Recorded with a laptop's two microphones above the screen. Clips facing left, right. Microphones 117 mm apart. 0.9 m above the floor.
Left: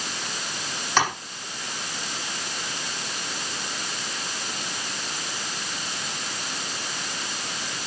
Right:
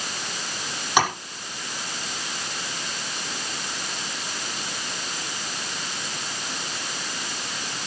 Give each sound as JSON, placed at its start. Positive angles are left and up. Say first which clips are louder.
{"t": 1.0, "sound": "tapping", "louder": "right 2 dB", "side_deg": -10, "distance_m": 7.0}